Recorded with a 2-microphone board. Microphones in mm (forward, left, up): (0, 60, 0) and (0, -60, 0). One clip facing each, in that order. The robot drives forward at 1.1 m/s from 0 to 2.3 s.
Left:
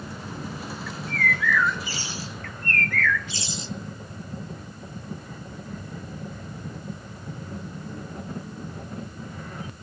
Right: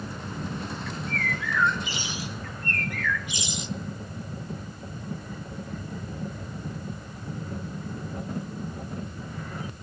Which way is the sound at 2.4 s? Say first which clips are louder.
Left 3 dB; 20° right (ahead or behind).